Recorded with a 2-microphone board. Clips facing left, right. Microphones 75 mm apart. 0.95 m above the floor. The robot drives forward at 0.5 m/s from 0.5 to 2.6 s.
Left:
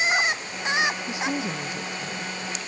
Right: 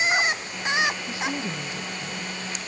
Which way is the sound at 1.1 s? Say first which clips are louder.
Left 2 dB; 20° left (ahead or behind).